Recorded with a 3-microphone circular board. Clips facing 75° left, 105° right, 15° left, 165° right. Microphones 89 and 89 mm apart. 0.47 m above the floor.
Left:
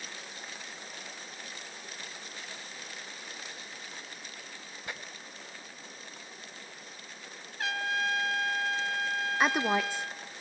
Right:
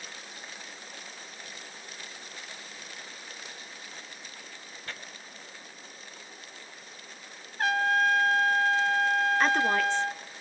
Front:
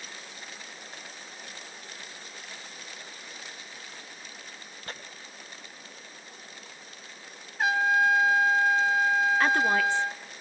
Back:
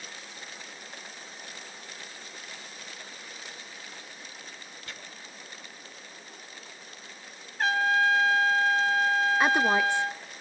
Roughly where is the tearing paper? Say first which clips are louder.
Left 1 dB, front 5 dB; ahead.